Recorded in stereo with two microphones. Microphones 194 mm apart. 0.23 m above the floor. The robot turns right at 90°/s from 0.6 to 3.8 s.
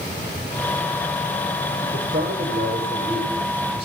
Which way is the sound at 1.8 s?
120° right.